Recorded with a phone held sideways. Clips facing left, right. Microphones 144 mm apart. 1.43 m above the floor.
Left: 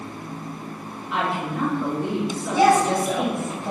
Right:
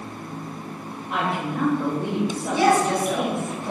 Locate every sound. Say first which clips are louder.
1.1 s a woman speaking: even; 50° right (ahead or behind), 1.1 m
2.5 s a woman speaking: left 2 dB; 50° left (ahead or behind), 1.8 m